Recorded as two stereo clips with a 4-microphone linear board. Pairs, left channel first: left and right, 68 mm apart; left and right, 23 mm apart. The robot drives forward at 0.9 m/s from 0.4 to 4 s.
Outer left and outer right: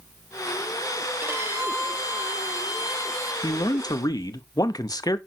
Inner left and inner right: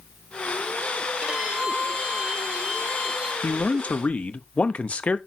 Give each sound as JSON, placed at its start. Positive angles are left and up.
{"t": 1.2, "sound": "a violin", "side_deg": -35, "distance_m": 1.9}
{"t": 3.4, "sound": "a man speaking", "side_deg": 80, "distance_m": 0.9}